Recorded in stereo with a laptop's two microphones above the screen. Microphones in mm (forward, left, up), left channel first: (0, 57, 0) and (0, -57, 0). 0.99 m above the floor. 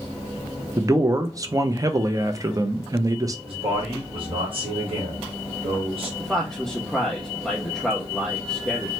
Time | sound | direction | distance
0.8 | a man speaking | 30° right (ahead or behind) | 0.5 m
3.5 | a man speaking | 50° right (ahead or behind) | 1.4 m
6.2 | a man speaking | centre (ahead or behind) | 0.7 m